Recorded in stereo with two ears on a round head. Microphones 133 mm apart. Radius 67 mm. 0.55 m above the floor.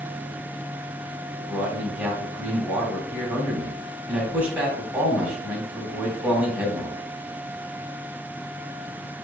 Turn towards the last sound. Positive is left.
turn(degrees=-10)  # may be behind; listen again after turning